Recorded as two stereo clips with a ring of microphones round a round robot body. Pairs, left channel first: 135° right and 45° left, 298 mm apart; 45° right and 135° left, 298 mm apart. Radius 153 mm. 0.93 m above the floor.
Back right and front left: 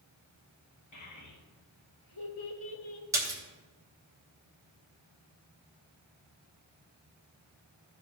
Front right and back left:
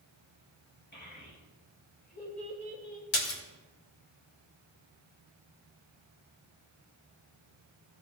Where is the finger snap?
No finger snap in this recording.